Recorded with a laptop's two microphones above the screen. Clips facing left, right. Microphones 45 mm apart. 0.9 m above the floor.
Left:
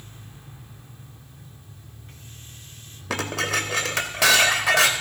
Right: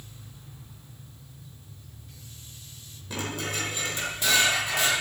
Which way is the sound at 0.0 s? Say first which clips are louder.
Left 3 dB; 40° left (ahead or behind).